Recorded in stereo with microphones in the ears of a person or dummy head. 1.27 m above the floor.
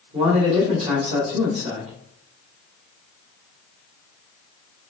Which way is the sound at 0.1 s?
40° right (ahead or behind).